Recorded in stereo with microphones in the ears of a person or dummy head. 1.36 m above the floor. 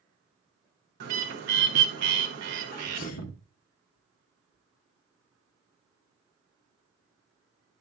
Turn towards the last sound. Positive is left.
turn(degrees=50)  # may be behind; listen again after turning